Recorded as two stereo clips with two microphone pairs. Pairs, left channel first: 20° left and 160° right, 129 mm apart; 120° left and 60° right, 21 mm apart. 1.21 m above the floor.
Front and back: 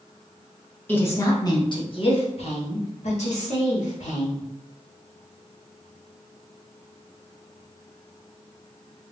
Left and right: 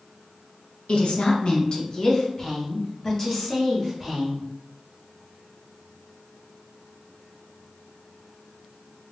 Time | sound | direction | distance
0.9 | a woman speaking | 95° left | 1.0 m